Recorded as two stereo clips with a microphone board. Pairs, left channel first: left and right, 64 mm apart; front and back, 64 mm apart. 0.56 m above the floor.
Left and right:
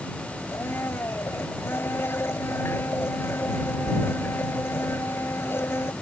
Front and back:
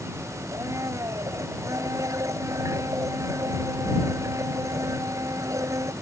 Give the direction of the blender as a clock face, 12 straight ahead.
7 o'clock.